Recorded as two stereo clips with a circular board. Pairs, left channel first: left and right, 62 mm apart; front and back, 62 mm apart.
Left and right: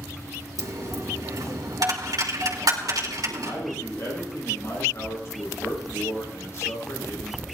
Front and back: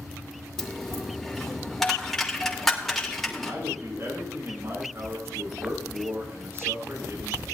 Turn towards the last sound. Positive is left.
turn(degrees=130)